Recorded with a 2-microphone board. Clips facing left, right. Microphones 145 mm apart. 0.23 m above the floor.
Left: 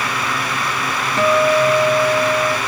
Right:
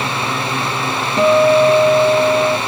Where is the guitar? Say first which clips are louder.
Right 4 dB; 20° right (ahead or behind).